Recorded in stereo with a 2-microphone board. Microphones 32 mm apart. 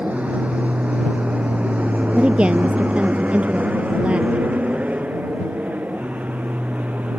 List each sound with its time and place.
0.0 s an aircraft: 45° right (ahead or behind)
2.1 s a woman speaking: 35° right (ahead or behind)